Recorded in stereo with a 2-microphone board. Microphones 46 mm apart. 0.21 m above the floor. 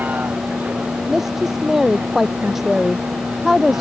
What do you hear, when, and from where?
0.0 s a vehicle: 40° right (ahead or behind)
1.1 s a woman speaking: 5° right (ahead or behind)